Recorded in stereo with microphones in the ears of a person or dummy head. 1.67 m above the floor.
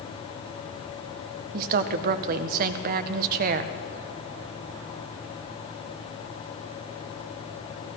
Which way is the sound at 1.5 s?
55° right (ahead or behind).